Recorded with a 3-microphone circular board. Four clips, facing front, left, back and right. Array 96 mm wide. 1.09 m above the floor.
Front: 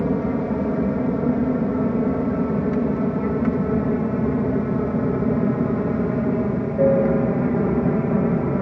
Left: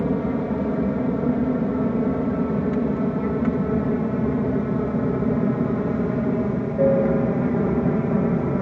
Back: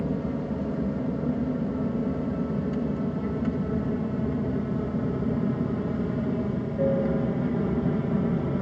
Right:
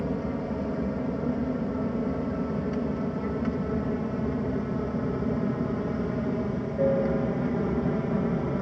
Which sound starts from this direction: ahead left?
An aircraft, at 0.0 s.